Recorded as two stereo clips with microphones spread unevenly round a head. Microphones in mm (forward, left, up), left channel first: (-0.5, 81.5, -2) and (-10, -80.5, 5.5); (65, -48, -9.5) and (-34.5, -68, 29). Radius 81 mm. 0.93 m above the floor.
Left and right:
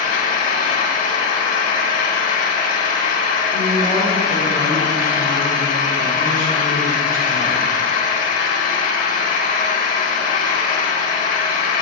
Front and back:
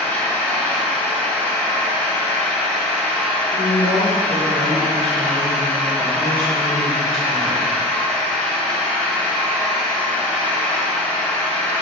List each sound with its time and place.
0.0 s an engine running: 110° left, 0.9 m
3.5 s a woman speaking: 140° right, 2.5 m